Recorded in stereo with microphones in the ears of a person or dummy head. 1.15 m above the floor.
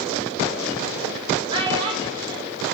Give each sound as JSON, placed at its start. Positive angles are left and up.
{"t": 1.5, "sound": "a child speaking", "side_deg": -30, "distance_m": 3.0}